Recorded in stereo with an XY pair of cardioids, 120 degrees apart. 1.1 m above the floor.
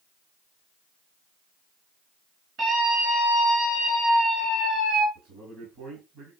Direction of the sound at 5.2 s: 60° right.